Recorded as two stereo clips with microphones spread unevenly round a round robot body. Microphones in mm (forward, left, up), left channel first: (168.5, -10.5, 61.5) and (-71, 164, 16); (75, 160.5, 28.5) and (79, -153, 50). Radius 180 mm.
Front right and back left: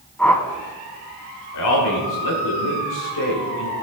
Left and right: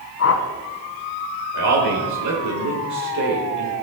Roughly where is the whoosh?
Ahead left.